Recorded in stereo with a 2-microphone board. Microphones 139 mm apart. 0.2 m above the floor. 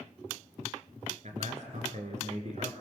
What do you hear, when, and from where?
1.2 s a man speaking: 55° right (ahead or behind), 3.5 m